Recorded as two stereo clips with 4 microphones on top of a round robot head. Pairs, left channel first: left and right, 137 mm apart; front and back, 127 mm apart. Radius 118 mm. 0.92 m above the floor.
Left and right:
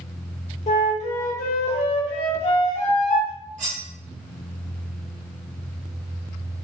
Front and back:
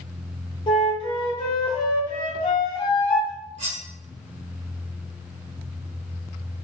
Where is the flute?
50° left, 1.1 m.